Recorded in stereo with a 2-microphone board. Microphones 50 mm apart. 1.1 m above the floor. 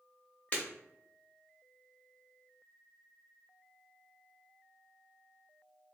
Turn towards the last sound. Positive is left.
turn(degrees=25)  # may be behind; listen again after turning